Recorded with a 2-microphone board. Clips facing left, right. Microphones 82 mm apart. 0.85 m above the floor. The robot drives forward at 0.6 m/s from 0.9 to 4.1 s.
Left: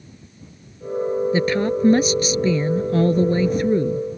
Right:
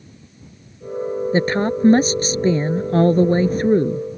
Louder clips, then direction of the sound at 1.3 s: Right 1 dB; 35° right (ahead or behind).